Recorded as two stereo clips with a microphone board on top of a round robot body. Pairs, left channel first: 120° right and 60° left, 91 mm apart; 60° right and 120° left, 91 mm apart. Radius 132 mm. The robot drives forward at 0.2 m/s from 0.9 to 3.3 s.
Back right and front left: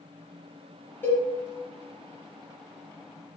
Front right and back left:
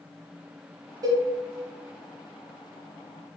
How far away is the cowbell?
About 0.7 m.